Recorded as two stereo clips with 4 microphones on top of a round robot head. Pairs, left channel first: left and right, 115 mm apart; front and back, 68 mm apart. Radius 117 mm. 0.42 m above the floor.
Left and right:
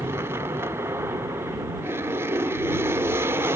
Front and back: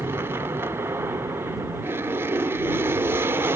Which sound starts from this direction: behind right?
An aircraft, at 0.0 s.